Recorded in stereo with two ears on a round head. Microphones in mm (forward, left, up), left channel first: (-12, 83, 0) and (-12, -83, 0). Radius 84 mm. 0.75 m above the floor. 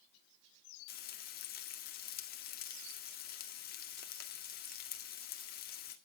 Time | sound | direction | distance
0.9 | frying | 50° left (ahead or behind) | 1.7 m